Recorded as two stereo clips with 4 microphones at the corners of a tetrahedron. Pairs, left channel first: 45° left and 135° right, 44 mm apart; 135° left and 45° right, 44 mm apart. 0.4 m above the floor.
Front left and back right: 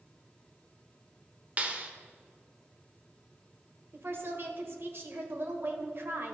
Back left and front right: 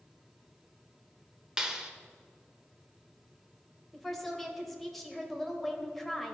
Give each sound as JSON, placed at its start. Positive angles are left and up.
{"t": 1.6, "sound": "a clap", "azimuth_deg": -110, "distance_m": 0.8}
{"t": 3.9, "sound": "a woman speaking", "azimuth_deg": -140, "distance_m": 1.2}